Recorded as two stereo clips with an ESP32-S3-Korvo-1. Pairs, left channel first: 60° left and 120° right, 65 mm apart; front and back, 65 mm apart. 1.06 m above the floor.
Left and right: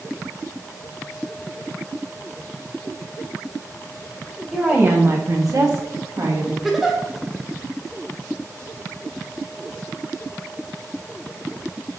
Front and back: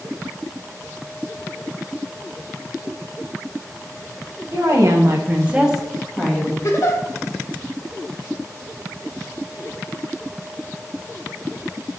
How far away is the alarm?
I don't hear an alarm.